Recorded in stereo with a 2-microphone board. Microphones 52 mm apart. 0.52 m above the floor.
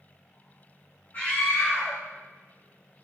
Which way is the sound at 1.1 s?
40° left (ahead or behind).